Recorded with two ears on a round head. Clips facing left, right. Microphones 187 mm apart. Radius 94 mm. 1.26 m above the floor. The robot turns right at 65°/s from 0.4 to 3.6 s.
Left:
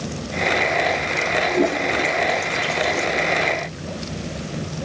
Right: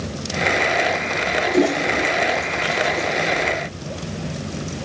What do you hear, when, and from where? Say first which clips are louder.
1.5 s a toilet flushing: right 3 dB; 40° right (ahead or behind), 2.0 m; by 3.0 s 60° left (ahead or behind), 2.0 m